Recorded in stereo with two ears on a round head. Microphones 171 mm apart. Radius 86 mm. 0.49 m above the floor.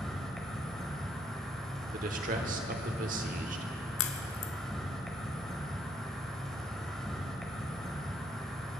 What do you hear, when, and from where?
0.0 s an insect: 5° left (ahead or behind), 1.3 m
1.9 s a man speaking: 45° right (ahead or behind), 1.2 m
4.0 s a crack: 75° left (ahead or behind), 0.9 m